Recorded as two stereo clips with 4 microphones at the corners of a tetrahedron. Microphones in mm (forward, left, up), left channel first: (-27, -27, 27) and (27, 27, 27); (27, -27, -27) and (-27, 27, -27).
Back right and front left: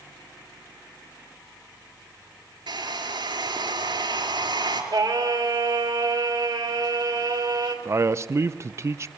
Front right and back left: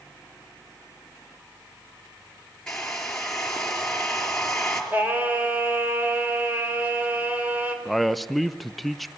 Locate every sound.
2.7 s a hair dryer: 35° left, 4.5 m
4.9 s singing: 70° left, 3.5 m
7.8 s a man speaking: 45° left, 0.7 m